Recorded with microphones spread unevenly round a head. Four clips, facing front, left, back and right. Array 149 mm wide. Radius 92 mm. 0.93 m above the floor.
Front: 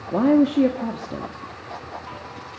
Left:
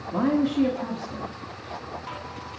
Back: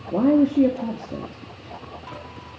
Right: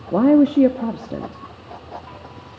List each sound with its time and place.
0.1 s a woman speaking: 105° right, 1.2 m